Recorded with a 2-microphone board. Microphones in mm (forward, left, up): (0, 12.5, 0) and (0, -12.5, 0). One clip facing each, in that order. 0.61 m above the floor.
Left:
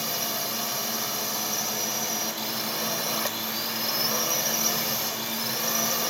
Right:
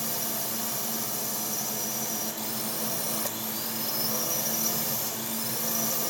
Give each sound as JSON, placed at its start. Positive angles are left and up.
{"t": 0.0, "sound": "a drone", "side_deg": 35}